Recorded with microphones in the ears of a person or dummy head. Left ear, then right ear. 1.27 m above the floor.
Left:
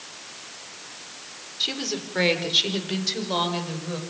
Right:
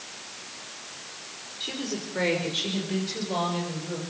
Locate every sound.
1.6 s a woman speaking: 40° left (ahead or behind), 4.5 m; by 4.0 s 50° left (ahead or behind), 7 m